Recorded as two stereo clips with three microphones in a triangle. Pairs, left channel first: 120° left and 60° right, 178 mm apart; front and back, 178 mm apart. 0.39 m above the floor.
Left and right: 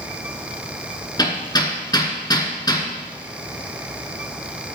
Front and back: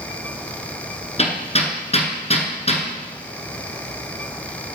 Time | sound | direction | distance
1.2 | hammering | 50° left | 2.0 m